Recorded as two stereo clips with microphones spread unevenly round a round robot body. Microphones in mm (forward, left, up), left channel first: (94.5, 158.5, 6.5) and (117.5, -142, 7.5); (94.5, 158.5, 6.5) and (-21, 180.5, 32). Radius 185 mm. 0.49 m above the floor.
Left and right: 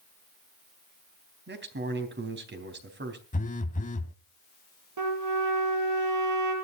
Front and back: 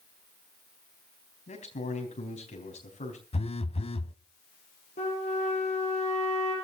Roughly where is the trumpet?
Ahead right.